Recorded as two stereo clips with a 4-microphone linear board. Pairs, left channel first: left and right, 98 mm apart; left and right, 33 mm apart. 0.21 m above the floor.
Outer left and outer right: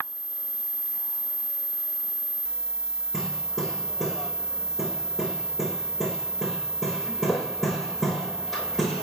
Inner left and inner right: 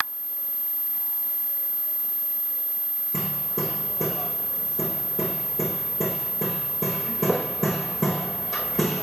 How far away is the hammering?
About 5 m.